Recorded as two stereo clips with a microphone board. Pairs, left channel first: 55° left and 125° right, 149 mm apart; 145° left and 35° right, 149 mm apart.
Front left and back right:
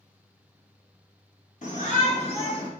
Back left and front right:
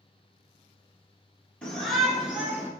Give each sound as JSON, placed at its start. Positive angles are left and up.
{"t": 1.6, "sound": "a shout", "azimuth_deg": 65, "distance_m": 2.0}